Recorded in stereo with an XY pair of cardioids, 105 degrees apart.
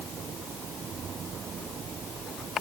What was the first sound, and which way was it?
Only background noise.